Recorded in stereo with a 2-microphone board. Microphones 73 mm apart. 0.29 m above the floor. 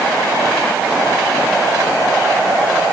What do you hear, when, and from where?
Only background noise.